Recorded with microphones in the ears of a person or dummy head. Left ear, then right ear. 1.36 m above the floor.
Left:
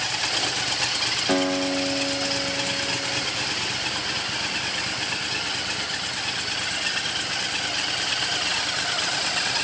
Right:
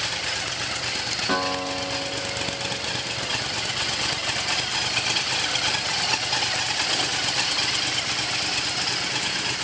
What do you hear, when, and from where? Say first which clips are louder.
1.3 s a guitar: left 2 dB; 5° left (ahead or behind), 1.5 m